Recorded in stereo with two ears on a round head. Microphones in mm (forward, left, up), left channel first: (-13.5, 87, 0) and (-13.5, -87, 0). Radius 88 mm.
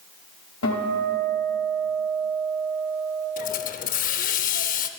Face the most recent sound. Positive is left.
turn(degrees=45)  # may be behind; listen again after turning